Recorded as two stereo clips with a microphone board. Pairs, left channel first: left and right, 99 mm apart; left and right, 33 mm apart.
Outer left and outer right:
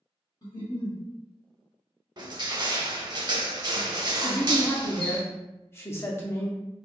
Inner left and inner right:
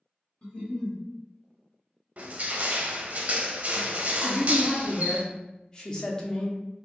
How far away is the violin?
No violin in this recording.